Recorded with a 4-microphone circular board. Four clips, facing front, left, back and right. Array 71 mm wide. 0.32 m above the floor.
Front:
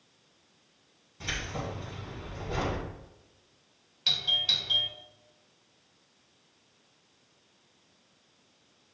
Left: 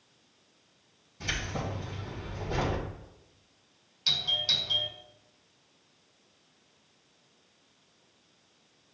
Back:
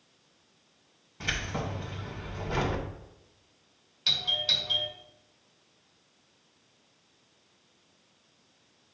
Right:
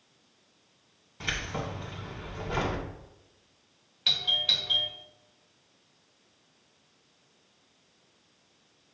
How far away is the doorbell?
About 1.7 m.